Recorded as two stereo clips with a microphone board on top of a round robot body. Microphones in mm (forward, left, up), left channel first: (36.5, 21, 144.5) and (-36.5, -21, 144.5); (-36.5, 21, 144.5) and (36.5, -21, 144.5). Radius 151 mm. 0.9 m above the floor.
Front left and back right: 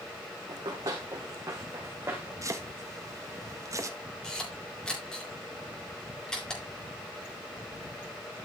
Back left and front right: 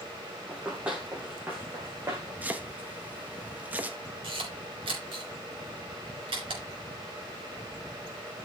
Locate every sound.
0.5 s running footsteps: 110° right, 3 m; by 2.3 s 85° right, 2.5 m
2.4 s chopping: 100° right, 1.5 m
4.2 s a camera shutter: 50° right, 3 m